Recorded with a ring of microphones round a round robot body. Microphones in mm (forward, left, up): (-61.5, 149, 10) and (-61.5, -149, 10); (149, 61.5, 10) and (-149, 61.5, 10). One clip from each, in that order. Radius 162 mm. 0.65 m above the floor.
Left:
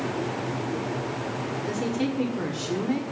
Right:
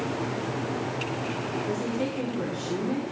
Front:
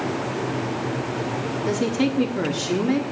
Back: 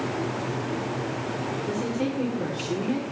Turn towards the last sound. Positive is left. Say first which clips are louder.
# left 3 dB, front 8 dB
turn(degrees=25)